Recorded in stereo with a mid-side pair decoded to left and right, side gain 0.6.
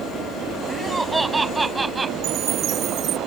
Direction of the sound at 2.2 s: 55° right.